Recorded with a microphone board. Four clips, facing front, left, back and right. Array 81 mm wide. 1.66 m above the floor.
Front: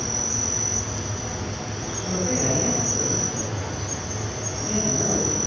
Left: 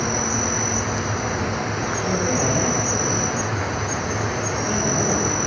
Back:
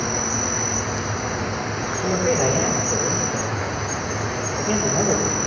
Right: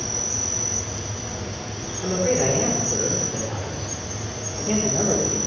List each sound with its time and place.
0.0 s an insect: 135° left, 0.9 m
2.0 s a man speaking: 165° right, 5 m